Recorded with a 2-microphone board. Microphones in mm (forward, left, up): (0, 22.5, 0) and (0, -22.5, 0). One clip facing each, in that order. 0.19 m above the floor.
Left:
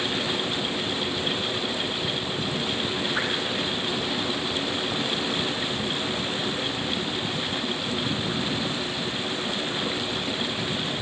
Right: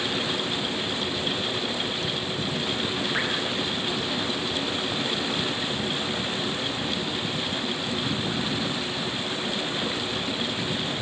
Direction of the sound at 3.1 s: 35° right (ahead or behind).